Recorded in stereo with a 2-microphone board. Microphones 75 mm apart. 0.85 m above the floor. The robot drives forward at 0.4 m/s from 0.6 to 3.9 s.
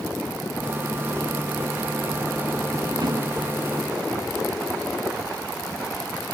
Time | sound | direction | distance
2.9 | a drawer | 75° right (ahead or behind) | 5 m